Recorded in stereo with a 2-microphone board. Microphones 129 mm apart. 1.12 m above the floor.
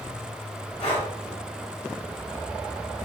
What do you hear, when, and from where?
0.8 s breathing: 60° left (ahead or behind), 1.5 m